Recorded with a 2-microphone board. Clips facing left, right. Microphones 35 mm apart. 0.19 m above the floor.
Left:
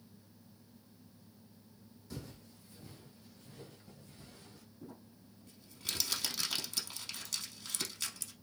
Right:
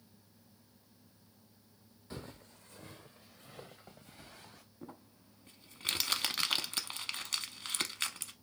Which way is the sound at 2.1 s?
35° right (ahead or behind).